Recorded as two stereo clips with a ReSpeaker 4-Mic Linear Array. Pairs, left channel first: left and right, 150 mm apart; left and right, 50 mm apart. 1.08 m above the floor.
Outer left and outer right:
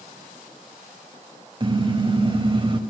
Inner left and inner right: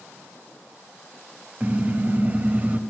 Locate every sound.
1.6 s a car horn: 35° right (ahead or behind), 3 m